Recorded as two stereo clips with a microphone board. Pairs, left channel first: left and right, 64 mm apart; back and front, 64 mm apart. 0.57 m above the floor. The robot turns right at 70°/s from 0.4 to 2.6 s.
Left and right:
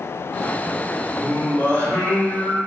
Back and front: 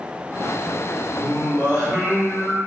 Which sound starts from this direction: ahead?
Singing, at 1.2 s.